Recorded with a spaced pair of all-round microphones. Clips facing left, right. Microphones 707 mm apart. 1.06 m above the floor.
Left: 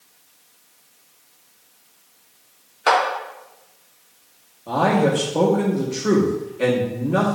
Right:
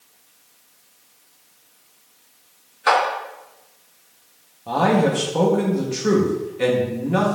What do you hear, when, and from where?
2.9 s a clap: 60° left (ahead or behind), 1.0 m
4.7 s a man speaking: 30° right (ahead or behind), 0.8 m